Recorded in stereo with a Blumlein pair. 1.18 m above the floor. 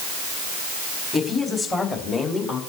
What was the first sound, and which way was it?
A woman speaking, 15° left.